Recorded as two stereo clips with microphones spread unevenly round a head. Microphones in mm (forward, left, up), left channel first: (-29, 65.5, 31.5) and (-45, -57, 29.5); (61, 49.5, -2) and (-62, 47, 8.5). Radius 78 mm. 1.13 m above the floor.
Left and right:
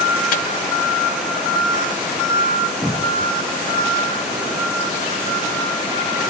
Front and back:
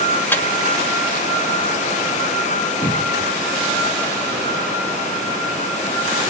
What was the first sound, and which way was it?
A microwave, 75° left.